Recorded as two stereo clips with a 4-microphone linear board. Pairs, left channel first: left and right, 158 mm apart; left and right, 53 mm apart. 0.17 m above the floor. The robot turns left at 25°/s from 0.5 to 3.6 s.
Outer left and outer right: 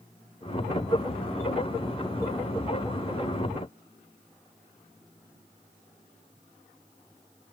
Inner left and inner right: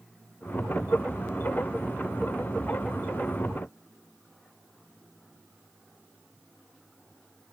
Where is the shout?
No shout in this recording.